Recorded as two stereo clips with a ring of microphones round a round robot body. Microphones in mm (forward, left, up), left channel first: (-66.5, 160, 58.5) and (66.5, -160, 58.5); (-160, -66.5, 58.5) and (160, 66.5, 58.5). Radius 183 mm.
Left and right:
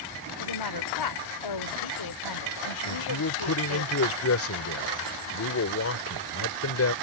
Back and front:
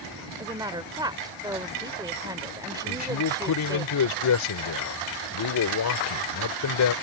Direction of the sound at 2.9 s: 165° left.